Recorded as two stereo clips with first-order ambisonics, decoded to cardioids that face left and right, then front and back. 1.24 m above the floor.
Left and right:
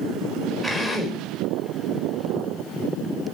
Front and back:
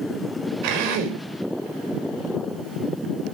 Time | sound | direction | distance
0.6 | a drill | 175° right | 4.5 m